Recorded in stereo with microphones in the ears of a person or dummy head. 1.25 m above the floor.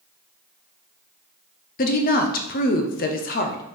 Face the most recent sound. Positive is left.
turn(degrees=45)  # may be behind; listen again after turning